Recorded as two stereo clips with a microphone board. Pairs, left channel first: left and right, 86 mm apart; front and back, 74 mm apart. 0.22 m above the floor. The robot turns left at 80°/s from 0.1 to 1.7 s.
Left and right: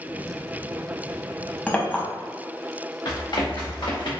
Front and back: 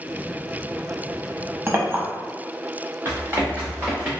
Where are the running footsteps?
125° left, 1.8 m; by 4.1 s 110° left, 2 m.